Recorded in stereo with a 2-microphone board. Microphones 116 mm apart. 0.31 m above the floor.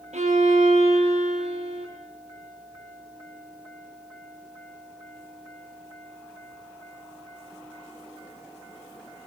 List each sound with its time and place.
0.1 s a violin: 75° right (ahead or behind), 4.5 m